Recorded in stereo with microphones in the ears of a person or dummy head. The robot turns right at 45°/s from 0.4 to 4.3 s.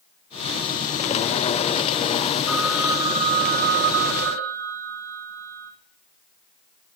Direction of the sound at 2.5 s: 175° right.